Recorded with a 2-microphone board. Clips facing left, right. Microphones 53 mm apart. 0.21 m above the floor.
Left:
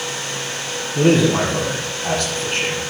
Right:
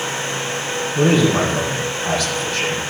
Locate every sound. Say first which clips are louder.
0.9 s a man speaking: left 1 dB; 60° left (ahead or behind), 5.5 m